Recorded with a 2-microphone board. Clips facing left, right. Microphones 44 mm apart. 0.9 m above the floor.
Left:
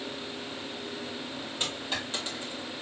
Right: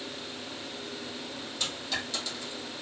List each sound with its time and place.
1.6 s a dropped coin: 35° left (ahead or behind), 2.5 m